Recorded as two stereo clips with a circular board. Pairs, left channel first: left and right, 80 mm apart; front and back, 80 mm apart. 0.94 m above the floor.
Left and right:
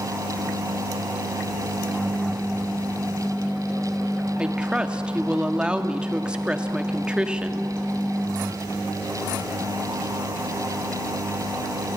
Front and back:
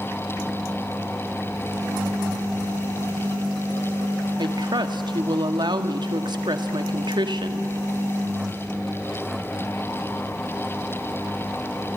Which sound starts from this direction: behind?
A woman speaking, at 4.4 s.